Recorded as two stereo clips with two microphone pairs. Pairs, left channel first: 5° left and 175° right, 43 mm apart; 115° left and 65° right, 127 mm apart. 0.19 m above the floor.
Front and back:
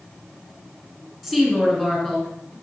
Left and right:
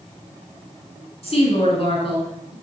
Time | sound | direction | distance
1.2 | a woman speaking | 95° left | 2.5 m